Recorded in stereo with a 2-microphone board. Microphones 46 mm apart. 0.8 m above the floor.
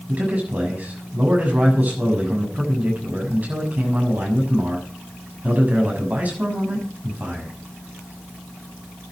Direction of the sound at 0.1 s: 35° right (ahead or behind).